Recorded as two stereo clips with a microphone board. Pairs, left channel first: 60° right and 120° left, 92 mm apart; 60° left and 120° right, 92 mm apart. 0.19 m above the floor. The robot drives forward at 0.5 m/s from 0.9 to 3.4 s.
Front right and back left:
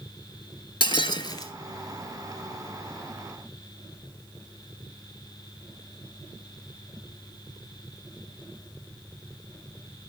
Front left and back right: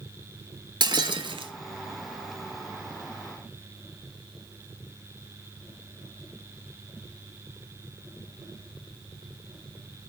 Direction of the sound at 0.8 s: 85° right.